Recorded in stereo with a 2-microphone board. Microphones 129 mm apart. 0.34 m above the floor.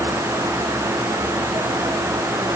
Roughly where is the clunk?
No clunk in this recording.